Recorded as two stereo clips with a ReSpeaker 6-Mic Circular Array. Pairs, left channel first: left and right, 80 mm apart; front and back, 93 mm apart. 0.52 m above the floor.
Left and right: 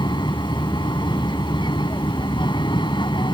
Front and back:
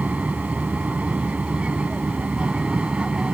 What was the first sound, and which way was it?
An aircraft, 105° left.